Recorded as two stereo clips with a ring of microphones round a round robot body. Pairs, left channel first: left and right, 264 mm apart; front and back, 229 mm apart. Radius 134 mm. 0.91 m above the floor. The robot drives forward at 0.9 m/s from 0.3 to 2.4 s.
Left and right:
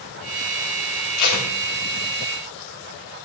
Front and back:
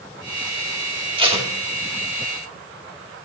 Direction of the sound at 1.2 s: 110° left.